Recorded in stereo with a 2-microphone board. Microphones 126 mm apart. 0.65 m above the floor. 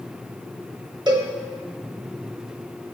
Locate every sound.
1.1 s a cowbell: 30° right (ahead or behind), 0.8 m